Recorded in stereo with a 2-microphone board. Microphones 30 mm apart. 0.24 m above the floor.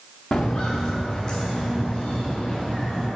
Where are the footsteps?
60° left (ahead or behind), 1.5 m; by 3.1 s 40° left (ahead or behind), 5 m.